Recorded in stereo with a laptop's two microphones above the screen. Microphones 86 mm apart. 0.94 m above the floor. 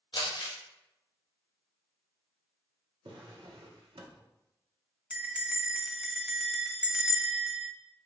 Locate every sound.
0.1 s crumpling: 65° left (ahead or behind), 1.2 m
3.0 s a drawer: 75° right (ahead or behind), 0.8 m
5.1 s a bell: 10° right (ahead or behind), 0.5 m